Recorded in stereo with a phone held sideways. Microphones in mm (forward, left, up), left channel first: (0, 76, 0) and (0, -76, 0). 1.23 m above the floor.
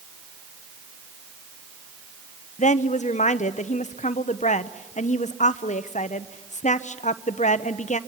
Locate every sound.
2.6 s a woman speaking: 50° left (ahead or behind), 0.8 m